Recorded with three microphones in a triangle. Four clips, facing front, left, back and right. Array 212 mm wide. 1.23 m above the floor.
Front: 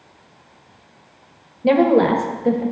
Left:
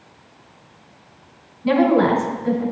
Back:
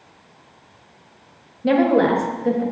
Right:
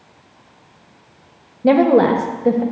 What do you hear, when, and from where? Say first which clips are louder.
1.6 s a woman speaking: right 3 dB, front 2 dB; 75° right, 1.4 m